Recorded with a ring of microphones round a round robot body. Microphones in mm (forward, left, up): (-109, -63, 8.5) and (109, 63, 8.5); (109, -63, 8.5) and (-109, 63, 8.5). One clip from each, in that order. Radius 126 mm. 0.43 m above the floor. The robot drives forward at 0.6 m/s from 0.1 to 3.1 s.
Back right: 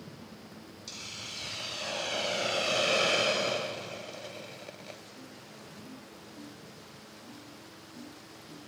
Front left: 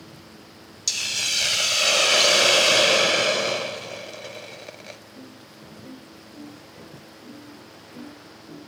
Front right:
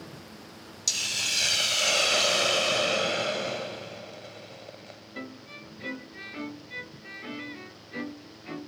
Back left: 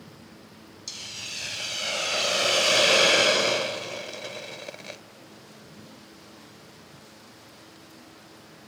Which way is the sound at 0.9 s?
25° left.